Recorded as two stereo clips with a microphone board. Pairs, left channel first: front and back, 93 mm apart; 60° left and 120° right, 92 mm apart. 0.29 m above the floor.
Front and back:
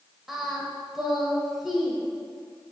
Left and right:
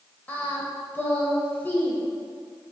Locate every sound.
0.3 s singing: 95° left, 0.6 m